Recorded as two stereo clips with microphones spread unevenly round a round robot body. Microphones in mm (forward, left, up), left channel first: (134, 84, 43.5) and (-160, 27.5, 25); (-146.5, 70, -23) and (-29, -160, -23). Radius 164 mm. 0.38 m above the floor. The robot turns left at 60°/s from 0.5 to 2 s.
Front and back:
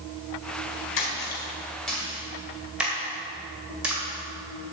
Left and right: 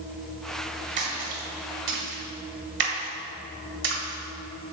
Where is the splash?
25° right, 1.8 m; by 4.7 s 85° right, 1.8 m.